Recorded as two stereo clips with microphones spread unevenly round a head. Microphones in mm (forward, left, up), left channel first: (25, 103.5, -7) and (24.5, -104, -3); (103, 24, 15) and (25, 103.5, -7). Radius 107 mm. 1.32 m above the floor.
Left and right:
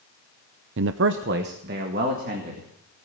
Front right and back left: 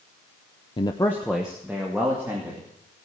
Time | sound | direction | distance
0.8 | a man speaking | 100° right | 0.5 m